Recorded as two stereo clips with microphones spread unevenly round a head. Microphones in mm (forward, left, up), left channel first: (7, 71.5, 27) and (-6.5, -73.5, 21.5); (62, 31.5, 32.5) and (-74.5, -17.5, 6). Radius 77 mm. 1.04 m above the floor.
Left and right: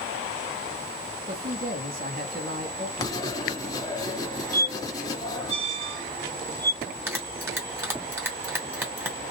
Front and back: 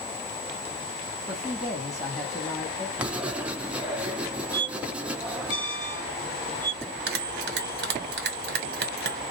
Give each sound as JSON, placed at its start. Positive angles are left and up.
{"t": 1.3, "sound": "a man speaking", "azimuth_deg": -80, "distance_m": 1.7}
{"t": 3.0, "sound": "writing", "azimuth_deg": 105, "distance_m": 0.5}
{"t": 4.5, "sound": "a squeak", "azimuth_deg": -90, "distance_m": 1.9}
{"t": 6.8, "sound": "a bell", "azimuth_deg": -170, "distance_m": 1.7}